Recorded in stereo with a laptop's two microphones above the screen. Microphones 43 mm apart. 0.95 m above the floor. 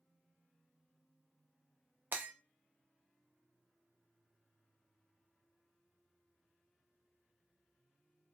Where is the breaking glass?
50° right (ahead or behind), 0.6 m.